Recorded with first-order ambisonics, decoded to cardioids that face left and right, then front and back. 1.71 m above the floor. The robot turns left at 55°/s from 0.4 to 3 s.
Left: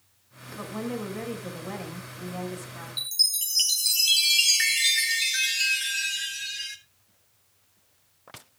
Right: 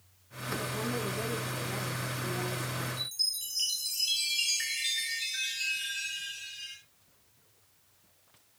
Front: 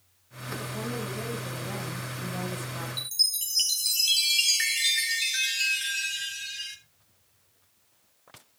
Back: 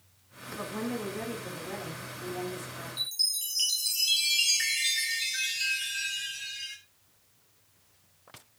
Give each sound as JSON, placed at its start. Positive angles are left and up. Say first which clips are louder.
{"t": 0.6, "sound": "a woman speaking", "louder": "left 2 dB, even", "azimuth_deg": 125, "distance_m": 6.5}
{"t": 3.0, "sound": "a chime", "louder": "left 10 dB, front 3 dB", "azimuth_deg": 60, "distance_m": 1.3}